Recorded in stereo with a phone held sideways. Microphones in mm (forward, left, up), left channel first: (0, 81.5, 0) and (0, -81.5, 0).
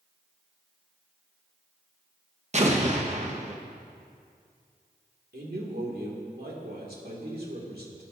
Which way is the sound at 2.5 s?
45° right (ahead or behind).